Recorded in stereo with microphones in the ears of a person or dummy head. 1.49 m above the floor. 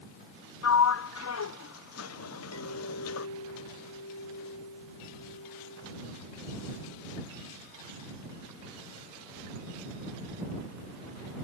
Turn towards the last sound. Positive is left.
turn(degrees=85)